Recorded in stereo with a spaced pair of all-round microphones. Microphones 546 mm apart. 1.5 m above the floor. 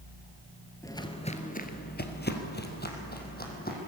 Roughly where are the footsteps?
Centre.